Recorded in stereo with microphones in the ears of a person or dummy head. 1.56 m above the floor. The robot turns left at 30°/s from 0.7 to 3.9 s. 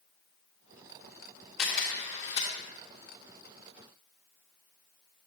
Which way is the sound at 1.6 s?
Centre (ahead or behind).